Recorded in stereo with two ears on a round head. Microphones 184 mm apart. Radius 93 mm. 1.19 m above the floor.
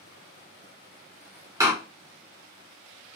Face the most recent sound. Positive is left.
turn(degrees=-15)  # may be behind; listen again after turning